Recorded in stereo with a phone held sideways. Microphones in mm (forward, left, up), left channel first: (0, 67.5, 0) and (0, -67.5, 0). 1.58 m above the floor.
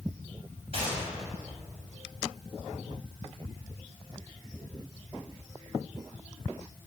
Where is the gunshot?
45° right (ahead or behind), 6.5 m.